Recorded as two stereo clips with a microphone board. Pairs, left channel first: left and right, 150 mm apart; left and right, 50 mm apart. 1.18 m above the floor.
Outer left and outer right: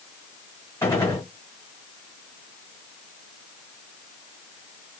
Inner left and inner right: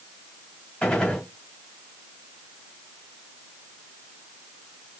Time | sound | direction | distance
0.8 | a gunshot | 20° left (ahead or behind) | 1.8 m